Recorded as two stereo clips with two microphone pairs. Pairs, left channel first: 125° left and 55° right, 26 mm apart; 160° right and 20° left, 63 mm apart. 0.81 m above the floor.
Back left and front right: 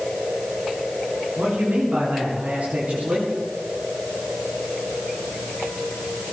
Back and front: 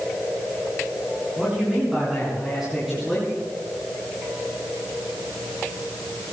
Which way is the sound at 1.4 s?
55° right.